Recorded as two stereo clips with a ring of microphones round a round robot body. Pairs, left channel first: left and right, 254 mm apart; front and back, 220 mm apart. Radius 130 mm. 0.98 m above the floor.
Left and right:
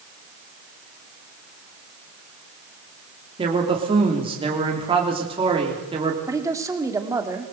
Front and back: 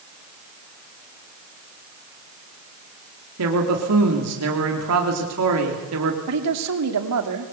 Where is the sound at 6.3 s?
170° right, 2.5 m.